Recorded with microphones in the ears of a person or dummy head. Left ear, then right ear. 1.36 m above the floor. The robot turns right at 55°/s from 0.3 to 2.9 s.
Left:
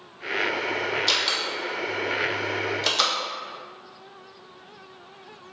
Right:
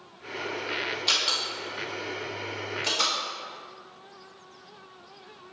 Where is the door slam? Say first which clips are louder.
Even; 15° right (ahead or behind), 1.5 m; by 3.1 s 75° left (ahead or behind), 1.5 m.